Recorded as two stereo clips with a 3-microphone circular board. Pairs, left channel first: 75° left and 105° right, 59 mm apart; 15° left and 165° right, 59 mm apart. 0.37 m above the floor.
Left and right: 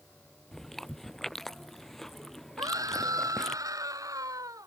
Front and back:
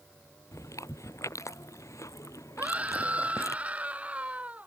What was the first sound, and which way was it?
Chewing, 10° right.